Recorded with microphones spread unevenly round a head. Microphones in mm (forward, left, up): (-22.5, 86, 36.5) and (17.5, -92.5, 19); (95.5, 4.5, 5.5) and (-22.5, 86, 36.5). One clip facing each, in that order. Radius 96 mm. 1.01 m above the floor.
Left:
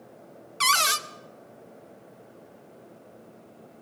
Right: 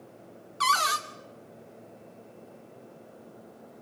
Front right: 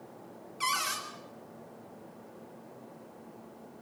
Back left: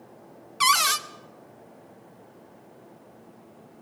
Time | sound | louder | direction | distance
0.6 | a cupboard door | even, back left 10 dB | 165° left | 0.9 m